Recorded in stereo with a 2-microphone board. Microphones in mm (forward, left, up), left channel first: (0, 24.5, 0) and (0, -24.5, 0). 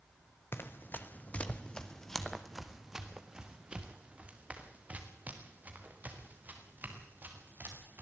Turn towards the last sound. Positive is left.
turn(degrees=-40)  # may be behind; listen again after turning